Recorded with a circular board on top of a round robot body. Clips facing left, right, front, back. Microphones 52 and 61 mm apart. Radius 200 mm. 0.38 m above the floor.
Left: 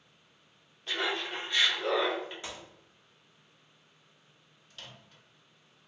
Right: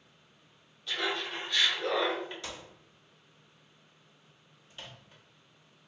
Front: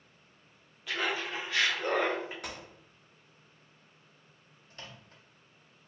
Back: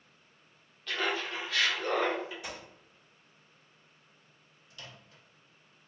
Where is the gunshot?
25° left, 1.5 m.